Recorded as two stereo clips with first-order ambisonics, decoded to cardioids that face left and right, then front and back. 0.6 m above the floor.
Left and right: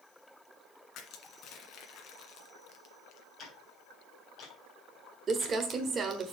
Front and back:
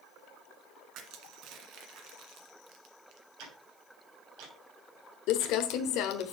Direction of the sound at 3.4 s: 155° left.